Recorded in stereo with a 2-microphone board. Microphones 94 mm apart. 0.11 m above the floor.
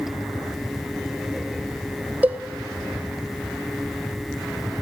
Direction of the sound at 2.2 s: 15° right (ahead or behind).